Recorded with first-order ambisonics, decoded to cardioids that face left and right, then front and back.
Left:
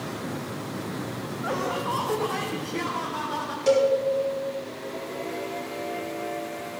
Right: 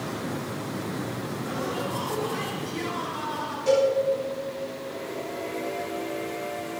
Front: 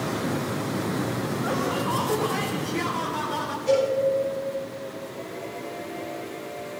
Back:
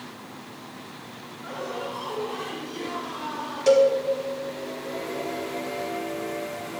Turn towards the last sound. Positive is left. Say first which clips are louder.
# left 1 dB, back 5 dB
turn(degrees=150)